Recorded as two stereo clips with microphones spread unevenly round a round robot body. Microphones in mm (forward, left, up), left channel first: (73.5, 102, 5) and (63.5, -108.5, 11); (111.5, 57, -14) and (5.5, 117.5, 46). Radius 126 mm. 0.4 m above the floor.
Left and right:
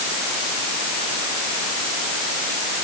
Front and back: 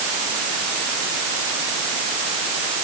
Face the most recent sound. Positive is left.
No sound to turn to.